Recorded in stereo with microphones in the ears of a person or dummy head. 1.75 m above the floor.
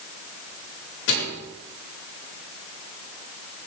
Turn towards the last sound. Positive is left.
turn(degrees=65)  # may be behind; listen again after turning